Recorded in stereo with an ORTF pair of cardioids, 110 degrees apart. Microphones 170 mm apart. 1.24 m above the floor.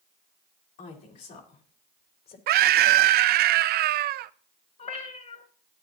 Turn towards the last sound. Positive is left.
turn(degrees=45)